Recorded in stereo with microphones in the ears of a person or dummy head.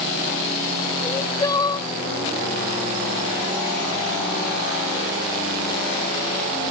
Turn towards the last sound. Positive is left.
turn(degrees=20)  # may be behind; listen again after turning